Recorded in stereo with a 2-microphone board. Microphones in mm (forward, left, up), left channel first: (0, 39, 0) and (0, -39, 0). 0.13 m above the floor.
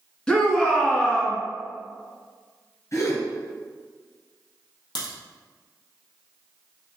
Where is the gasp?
45° left (ahead or behind), 2.5 m.